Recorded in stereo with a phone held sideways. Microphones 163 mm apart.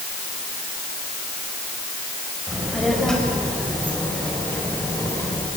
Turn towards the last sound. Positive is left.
turn(degrees=20)  # may be behind; listen again after turning